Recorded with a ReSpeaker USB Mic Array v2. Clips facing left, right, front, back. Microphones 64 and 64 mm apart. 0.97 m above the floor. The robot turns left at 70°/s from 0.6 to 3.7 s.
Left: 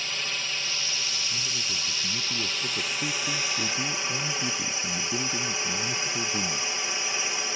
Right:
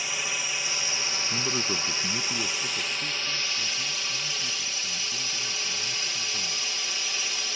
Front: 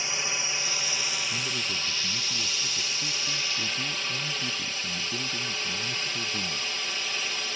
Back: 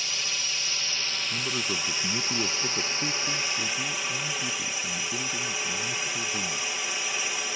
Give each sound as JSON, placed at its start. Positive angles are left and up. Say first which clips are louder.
{"t": 0.0, "sound": "a drone", "louder": "right 1 dB, front 2 dB", "azimuth_deg": -25}
{"t": 1.3, "sound": "a man speaking", "louder": "right 5 dB, back 2 dB", "azimuth_deg": -100}